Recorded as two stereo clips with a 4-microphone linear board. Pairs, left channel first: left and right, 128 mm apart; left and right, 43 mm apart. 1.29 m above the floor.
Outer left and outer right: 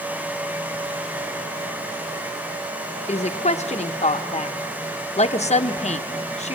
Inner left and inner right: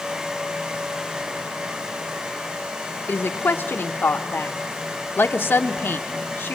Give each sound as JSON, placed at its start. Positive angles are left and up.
{"t": 3.1, "sound": "a woman speaking", "side_deg": 55, "distance_m": 0.8}